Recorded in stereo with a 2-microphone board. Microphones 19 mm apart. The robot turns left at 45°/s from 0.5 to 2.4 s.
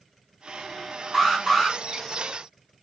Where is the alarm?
5° right (ahead or behind), 3 m; by 1.8 s 20° left (ahead or behind), 3 m.